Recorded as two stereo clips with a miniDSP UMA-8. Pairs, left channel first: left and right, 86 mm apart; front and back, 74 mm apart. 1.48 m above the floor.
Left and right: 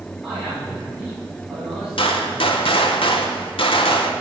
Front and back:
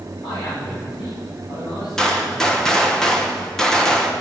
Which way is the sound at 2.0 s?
80° left.